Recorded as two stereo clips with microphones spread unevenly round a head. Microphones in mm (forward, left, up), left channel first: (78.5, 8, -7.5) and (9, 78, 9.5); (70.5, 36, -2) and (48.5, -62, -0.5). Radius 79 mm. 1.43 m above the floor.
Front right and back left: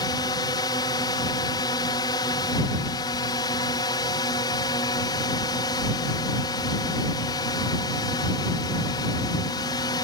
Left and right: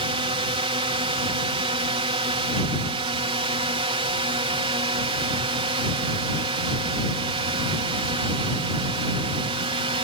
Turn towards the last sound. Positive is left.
turn(degrees=-95)